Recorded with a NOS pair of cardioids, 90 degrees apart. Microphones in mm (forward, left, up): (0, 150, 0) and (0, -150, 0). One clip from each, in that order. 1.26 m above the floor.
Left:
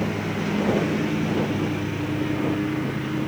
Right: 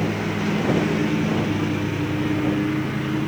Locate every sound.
0.0 s a lawn mower: 20° right